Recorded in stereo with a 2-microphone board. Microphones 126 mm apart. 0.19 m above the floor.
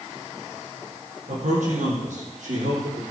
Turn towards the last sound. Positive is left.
turn(degrees=-80)